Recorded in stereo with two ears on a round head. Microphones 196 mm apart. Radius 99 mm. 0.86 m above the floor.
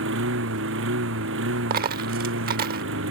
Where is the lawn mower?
60° right (ahead or behind).